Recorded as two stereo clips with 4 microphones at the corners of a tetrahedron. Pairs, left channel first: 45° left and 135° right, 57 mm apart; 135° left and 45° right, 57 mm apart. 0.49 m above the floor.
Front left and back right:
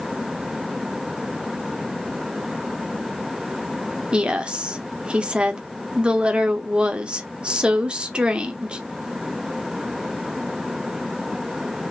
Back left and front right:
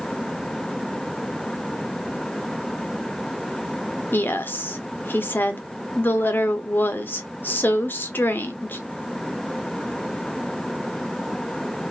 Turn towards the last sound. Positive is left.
turn(degrees=160)